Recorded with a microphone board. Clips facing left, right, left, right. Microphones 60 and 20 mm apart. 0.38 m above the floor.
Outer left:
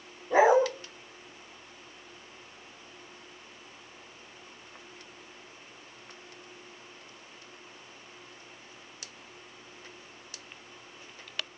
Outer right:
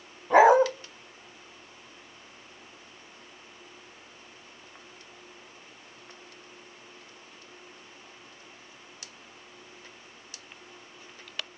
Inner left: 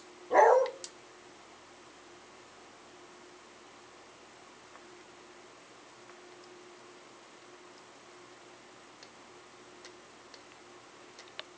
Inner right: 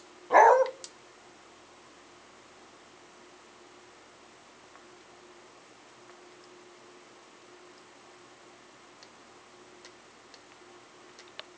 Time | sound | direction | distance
0.3 | a dog barking | 70° right (ahead or behind) | 0.9 m